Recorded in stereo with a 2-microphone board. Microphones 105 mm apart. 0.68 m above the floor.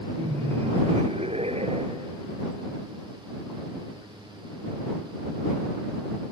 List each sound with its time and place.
0.2 s laughter: 65° right (ahead or behind); by 2.2 s 70° right (ahead or behind)